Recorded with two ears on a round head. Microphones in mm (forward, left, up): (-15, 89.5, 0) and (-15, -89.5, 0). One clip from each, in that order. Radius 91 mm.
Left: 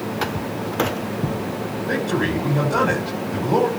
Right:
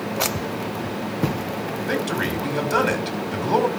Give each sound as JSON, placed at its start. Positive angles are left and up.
{"t": 1.9, "sound": "a man speaking", "side_deg": -75, "distance_m": 6.0}